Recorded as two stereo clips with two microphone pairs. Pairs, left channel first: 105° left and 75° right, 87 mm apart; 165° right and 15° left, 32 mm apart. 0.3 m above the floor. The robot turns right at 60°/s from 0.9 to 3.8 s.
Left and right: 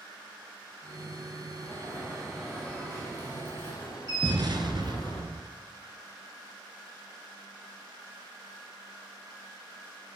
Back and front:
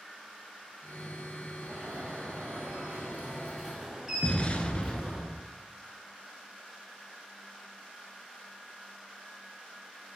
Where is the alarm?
35° right, 5 m; by 5.2 s 95° left, 5 m.